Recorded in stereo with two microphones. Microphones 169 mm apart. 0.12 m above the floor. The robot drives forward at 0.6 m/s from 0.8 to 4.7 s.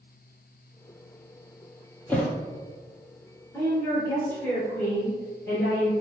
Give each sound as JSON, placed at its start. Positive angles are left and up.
{"t": 2.1, "sound": "a thud", "side_deg": 10, "distance_m": 0.9}
{"t": 3.5, "sound": "a woman speaking", "side_deg": 15, "distance_m": 1.4}